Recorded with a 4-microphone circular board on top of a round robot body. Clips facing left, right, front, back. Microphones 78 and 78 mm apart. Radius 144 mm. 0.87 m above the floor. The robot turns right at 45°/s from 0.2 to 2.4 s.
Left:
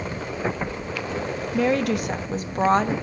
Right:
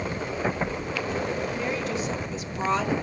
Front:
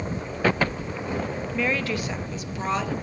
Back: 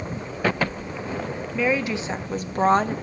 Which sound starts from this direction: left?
A woman speaking, at 1.5 s.